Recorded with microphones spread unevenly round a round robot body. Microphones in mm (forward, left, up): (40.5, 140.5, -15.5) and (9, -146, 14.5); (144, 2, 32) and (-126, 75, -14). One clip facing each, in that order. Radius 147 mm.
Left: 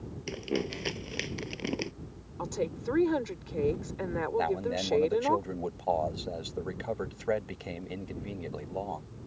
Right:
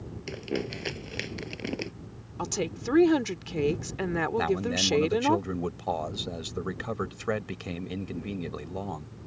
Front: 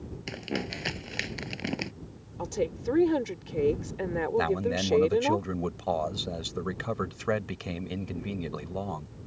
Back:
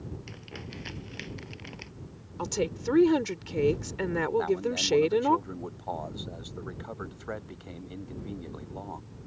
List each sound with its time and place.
0.3 s crumpling: 5° right
2.4 s a woman speaking: 135° right
4.4 s a man speaking: 35° right